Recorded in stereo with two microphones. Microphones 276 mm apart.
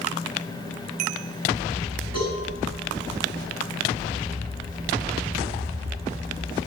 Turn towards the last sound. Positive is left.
turn(degrees=-70)  # may be behind; listen again after turning